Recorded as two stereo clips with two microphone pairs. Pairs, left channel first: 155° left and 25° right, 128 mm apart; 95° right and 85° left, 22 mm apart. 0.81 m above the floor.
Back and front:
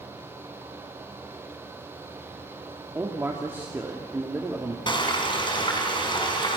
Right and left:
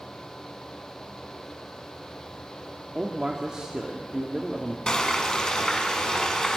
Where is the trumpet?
I don't hear a trumpet.